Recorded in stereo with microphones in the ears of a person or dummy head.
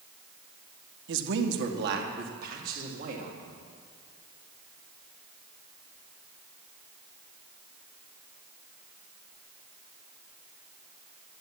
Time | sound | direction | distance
1.1 | a man speaking | 65° right (ahead or behind) | 1.6 m